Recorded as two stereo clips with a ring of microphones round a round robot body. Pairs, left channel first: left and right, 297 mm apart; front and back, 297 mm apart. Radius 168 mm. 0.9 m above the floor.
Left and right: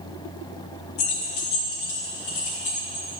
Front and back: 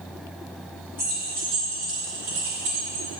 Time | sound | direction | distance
1.0 | keys jangling | 95° left | 1.0 m